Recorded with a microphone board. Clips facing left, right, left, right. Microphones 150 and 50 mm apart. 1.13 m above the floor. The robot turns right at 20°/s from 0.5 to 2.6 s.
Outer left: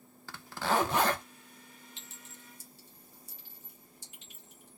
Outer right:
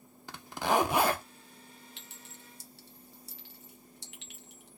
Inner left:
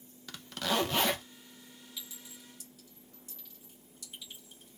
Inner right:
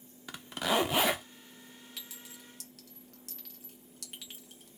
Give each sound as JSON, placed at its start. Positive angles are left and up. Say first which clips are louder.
{"t": 0.3, "sound": "a zipper", "louder": "outer right 2 dB, inner right 2 dB", "side_deg": -15, "distance_m": 0.7}
{"t": 2.0, "sound": "a clink", "louder": "outer right 1 dB, inner left 1 dB", "side_deg": -65, "distance_m": 1.4}